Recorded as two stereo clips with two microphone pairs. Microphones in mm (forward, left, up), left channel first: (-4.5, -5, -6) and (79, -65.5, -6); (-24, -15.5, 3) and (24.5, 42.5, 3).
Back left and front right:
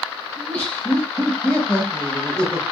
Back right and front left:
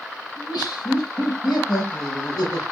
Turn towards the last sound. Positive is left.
turn(degrees=-135)